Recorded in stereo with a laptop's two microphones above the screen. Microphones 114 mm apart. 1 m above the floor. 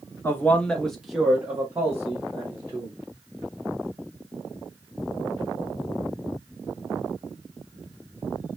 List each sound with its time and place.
0.2 s a man speaking: 20° left (ahead or behind), 0.8 m; by 3.0 s 25° right (ahead or behind), 1.5 m